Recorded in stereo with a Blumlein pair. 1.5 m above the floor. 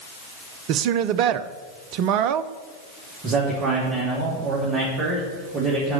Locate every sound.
0.7 s a woman speaking: 40° right, 0.6 m
3.2 s a man speaking: 25° right, 3 m